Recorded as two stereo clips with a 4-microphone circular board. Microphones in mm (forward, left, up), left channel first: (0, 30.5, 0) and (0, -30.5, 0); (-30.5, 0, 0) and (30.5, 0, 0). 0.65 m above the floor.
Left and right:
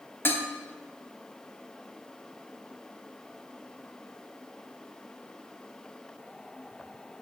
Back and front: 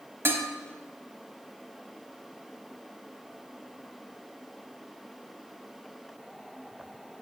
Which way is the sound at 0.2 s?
45° left.